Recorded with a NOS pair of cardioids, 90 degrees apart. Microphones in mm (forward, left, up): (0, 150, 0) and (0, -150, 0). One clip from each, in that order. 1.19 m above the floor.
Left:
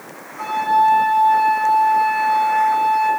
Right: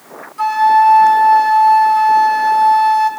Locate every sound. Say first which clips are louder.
0.4 s a flute: right 6 dB; 70° right, 4.5 m